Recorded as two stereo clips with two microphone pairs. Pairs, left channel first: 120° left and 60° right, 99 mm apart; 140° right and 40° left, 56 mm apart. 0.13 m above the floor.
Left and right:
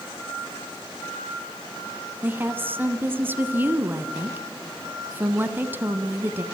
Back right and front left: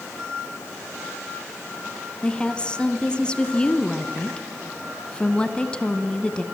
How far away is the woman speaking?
About 1.3 m.